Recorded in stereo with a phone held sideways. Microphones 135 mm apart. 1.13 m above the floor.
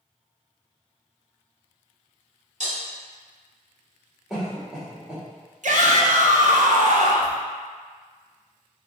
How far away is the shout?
About 0.8 m.